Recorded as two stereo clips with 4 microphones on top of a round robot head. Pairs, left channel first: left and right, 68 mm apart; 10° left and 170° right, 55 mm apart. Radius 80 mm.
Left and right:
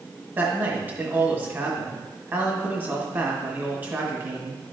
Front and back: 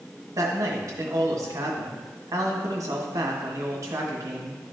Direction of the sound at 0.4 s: 155° right.